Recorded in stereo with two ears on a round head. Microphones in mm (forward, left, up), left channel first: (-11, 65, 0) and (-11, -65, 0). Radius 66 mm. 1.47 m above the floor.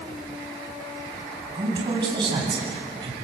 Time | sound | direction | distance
1.6 | a woman speaking | 35° right (ahead or behind) | 9 m